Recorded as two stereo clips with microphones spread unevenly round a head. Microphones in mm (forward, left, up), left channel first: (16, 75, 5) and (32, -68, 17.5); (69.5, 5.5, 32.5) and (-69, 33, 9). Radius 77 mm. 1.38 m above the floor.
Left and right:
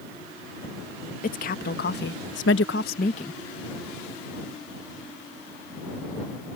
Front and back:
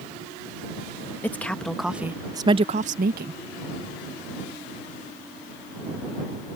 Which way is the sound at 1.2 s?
65° left.